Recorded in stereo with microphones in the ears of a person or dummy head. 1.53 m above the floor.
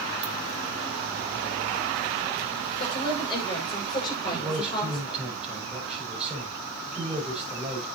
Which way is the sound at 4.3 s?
5° right (ahead or behind).